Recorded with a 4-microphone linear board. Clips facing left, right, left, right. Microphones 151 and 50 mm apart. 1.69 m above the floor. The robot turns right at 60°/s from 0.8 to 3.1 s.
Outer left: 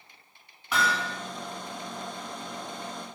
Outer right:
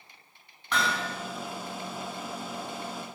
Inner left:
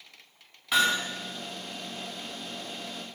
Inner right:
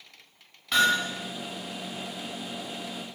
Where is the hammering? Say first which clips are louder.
Outer left 1 dB, inner right 2 dB; 5° left (ahead or behind), 5 m; by 1.1 s 20° left (ahead or behind), 5 m.